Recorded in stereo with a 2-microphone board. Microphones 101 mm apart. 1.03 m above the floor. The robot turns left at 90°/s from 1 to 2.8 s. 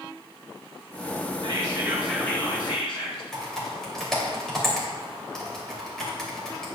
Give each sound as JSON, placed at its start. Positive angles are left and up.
{"t": 1.4, "sound": "whispering", "azimuth_deg": -120, "distance_m": 3.0}
{"t": 3.3, "sound": "typing on a keyboard", "side_deg": 5, "distance_m": 2.5}